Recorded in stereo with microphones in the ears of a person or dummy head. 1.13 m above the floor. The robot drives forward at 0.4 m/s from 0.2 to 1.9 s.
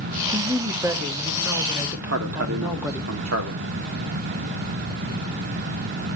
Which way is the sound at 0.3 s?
15° right (ahead or behind).